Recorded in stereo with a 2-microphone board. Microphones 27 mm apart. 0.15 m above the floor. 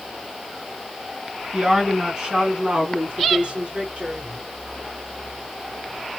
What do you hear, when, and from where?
1.5 s a woman speaking: 25° right (ahead or behind), 2 m; by 4.4 s 50° right (ahead or behind), 2.5 m